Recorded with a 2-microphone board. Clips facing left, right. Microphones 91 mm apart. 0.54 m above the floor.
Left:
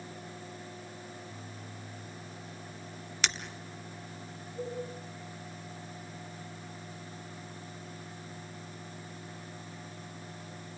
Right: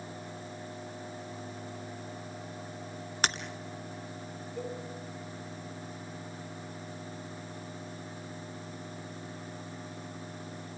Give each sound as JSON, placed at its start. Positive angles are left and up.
{"t": 3.2, "sound": "breaking glass", "side_deg": -45, "distance_m": 1.6}
{"t": 4.6, "sound": "a cowbell", "side_deg": -70, "distance_m": 5.0}